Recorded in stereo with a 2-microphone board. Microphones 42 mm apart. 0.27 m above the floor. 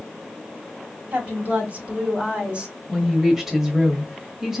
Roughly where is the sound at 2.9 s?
Centre.